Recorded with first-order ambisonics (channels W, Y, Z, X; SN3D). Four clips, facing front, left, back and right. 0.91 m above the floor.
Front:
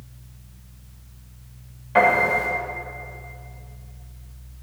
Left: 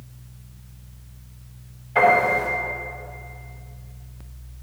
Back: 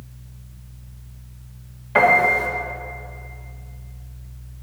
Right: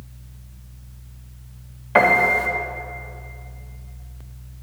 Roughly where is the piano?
Right.